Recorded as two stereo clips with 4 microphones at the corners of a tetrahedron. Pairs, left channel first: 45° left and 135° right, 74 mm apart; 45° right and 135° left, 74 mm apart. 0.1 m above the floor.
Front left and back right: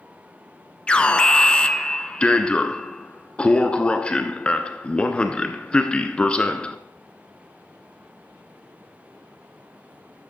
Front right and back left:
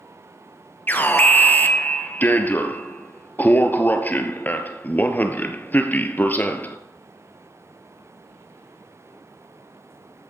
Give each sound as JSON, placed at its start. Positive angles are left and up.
{"t": 0.9, "sound": "an alarm", "azimuth_deg": -15, "distance_m": 1.1}